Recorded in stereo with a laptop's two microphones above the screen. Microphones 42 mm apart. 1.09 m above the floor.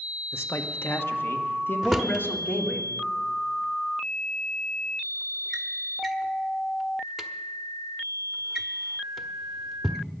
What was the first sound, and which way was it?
A man speaking, 80° left.